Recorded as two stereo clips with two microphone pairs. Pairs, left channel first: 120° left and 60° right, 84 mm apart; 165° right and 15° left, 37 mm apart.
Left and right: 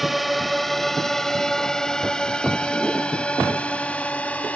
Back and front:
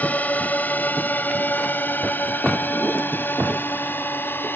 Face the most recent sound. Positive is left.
turn(degrees=-170)